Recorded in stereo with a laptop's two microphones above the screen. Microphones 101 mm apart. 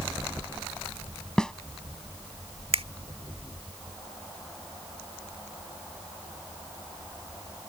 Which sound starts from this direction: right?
A finger snap, at 2.7 s.